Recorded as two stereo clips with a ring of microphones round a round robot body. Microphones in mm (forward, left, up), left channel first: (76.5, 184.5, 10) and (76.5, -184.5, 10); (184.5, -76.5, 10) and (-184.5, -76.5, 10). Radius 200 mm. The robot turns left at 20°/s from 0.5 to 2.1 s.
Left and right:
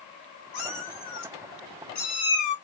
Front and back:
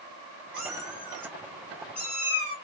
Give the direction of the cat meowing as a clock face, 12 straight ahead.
9 o'clock.